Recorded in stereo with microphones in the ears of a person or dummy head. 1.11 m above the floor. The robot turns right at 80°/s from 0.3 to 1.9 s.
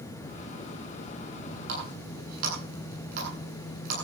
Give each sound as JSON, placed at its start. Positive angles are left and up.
{"t": 1.7, "sound": "a running tap", "side_deg": -70, "distance_m": 9.0}